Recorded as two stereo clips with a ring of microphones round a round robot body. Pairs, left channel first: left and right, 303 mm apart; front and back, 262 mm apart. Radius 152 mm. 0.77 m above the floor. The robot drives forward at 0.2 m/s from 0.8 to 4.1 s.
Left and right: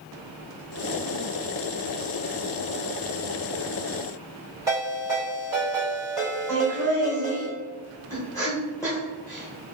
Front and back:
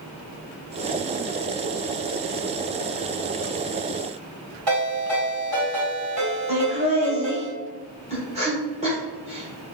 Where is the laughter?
160° left, 1.1 m.